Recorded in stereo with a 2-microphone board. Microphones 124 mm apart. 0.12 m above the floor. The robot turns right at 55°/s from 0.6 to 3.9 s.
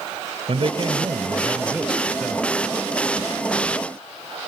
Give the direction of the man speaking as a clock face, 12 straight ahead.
2 o'clock.